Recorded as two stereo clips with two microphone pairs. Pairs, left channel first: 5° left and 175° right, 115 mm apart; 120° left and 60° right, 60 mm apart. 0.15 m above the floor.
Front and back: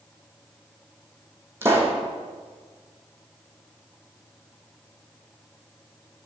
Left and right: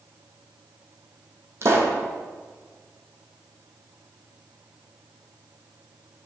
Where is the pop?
105° right, 1.0 m.